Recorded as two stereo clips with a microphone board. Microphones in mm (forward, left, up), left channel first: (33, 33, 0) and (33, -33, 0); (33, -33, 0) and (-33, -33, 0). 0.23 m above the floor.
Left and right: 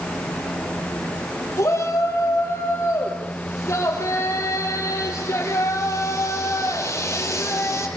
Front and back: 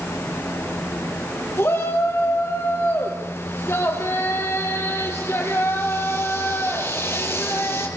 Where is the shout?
45° left, 7 m.